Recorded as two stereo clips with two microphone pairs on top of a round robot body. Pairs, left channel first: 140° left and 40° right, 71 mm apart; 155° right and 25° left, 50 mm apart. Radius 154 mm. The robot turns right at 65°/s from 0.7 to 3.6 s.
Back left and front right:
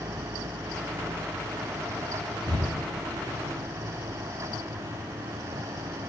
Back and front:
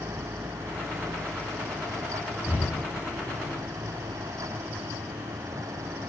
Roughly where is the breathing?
Ahead right.